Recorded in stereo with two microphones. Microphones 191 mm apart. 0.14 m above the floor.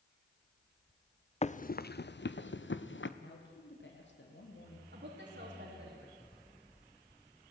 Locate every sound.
1.4 s running footsteps: 35° left (ahead or behind), 0.7 m; by 3.1 s 85° left, 1.6 m
3.2 s a man speaking: 70° left (ahead or behind), 6 m
4.9 s a woman speaking: 75° right (ahead or behind), 6.5 m